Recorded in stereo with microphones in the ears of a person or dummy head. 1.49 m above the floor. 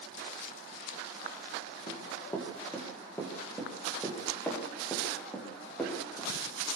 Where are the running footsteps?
15° left (ahead or behind), 6 m; by 6.3 s 10° left (ahead or behind), 8.5 m.